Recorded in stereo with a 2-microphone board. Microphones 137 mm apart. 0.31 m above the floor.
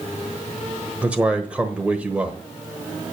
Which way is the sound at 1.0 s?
10° right (ahead or behind).